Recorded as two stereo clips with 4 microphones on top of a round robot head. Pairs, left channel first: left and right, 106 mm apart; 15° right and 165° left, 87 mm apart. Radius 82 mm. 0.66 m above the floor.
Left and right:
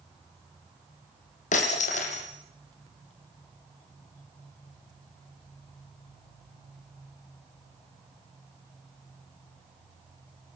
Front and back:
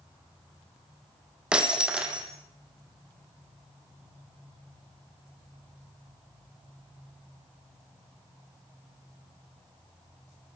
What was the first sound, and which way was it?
Breaking glass, 85° left.